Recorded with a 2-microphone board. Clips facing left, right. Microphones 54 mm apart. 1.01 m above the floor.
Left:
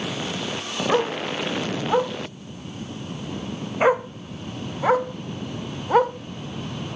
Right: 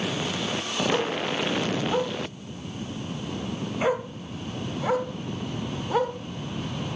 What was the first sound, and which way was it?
A dog barking, 35° left (ahead or behind).